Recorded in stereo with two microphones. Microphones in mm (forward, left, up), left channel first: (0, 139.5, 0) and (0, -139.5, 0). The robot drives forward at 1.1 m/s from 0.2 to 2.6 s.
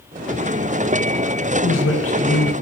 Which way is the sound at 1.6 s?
60° left (ahead or behind).